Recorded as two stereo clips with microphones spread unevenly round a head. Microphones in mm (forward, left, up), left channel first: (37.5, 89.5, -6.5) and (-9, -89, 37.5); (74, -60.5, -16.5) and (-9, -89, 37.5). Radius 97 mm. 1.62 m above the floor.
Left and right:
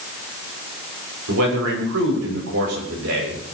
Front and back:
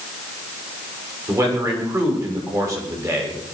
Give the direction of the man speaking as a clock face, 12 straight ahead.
4 o'clock.